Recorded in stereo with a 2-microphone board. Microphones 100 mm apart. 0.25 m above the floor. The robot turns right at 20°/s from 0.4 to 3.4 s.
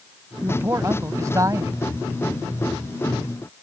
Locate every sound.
0.4 s a man speaking: 25° right (ahead or behind); by 1.8 s 35° right (ahead or behind)